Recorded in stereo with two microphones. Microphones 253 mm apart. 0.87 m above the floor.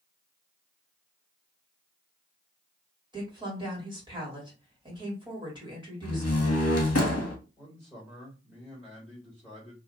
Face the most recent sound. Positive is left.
turn(degrees=-5)  # may be behind; listen again after turning